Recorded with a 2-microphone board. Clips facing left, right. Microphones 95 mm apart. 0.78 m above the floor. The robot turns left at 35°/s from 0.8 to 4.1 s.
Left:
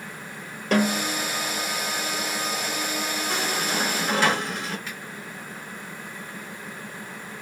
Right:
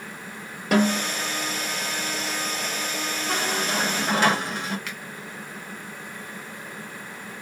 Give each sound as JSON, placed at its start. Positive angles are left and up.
{"t": 0.7, "sound": "a snare drum", "side_deg": -10, "distance_m": 2.0}
{"t": 3.3, "sound": "a squeak", "side_deg": -65, "distance_m": 2.5}
{"t": 4.9, "sound": "a finger snap", "side_deg": -70, "distance_m": 1.3}